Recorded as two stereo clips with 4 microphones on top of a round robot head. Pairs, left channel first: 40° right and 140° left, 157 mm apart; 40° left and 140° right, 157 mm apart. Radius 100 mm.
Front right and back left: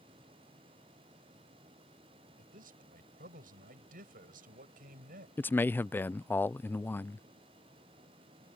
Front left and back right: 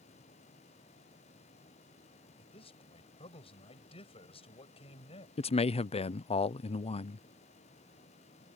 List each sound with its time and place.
2.4 s a man speaking: 100° left
5.4 s a man speaking: 30° left